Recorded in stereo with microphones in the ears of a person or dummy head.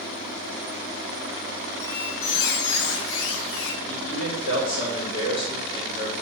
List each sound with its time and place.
1.8 s a squeak: 65° left (ahead or behind), 1.0 m
3.9 s a man speaking: 75° left (ahead or behind), 3.5 m